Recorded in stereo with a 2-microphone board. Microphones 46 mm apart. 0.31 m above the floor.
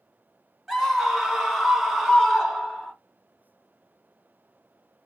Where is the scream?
5° right (ahead or behind), 1.1 m.